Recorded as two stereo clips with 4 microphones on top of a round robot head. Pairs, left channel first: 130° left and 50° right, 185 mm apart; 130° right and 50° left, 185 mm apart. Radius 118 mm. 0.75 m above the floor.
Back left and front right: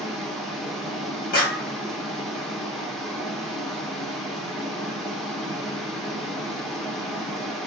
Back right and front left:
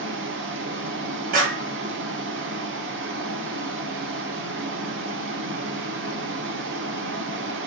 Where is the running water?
45° left, 1.7 m.